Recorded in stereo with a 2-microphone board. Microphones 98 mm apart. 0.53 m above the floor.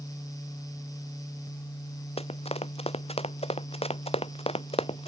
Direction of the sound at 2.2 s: 85° left.